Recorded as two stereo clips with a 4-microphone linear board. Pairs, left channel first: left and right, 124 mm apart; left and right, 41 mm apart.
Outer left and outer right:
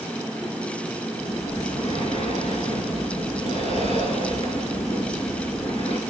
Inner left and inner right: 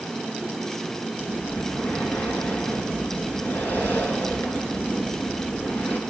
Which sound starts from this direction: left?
Breathing, at 1.2 s.